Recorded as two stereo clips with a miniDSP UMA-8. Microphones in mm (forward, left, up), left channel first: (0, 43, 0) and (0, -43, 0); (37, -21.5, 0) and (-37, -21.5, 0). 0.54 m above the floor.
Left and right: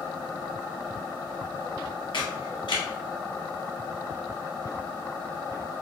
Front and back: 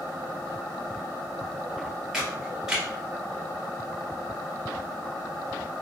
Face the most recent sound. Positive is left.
turn(degrees=95)